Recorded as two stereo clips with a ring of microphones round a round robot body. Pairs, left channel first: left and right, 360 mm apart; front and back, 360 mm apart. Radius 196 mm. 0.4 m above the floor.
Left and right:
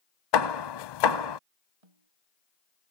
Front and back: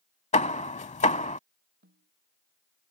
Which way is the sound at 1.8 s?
115° right.